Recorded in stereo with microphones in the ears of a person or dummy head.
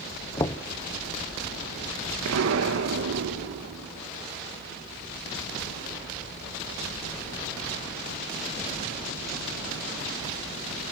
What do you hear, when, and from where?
0.4 s knocking: 20° left (ahead or behind), 0.7 m
2.2 s an explosion: 85° right, 2 m